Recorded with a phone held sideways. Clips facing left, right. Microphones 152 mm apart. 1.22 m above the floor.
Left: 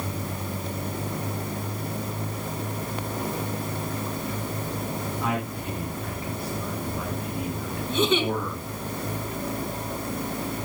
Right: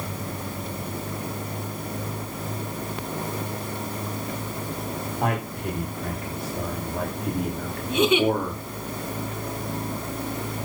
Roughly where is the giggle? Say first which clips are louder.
Right 4 dB; centre.